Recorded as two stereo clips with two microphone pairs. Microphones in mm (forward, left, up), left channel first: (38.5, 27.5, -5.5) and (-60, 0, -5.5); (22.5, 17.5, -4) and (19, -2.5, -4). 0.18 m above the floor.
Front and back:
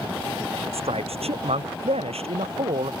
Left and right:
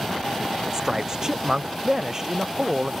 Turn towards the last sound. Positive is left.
turn(degrees=-160)